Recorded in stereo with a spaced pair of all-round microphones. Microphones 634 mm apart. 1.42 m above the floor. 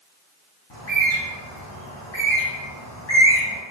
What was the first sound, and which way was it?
A bird, 45° left (ahead or behind).